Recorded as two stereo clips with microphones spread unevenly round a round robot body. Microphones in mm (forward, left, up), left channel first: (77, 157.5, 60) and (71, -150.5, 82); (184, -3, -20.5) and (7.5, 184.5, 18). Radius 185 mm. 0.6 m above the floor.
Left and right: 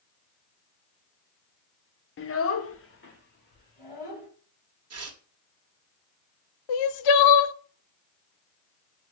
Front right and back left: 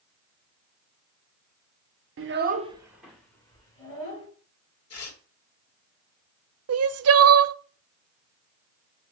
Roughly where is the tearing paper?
Ahead right.